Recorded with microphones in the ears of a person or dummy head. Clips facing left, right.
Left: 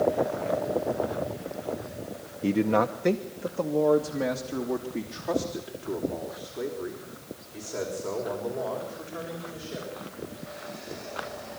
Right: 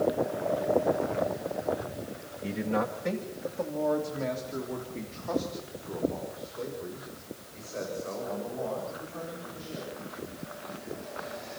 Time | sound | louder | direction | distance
2.4 | a man speaking | left 7 dB | 60° left (ahead or behind) | 0.8 m